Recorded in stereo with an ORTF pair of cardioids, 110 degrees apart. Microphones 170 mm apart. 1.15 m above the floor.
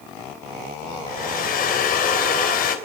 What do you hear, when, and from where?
1.1 s a hair dryer: 60° left, 2.5 m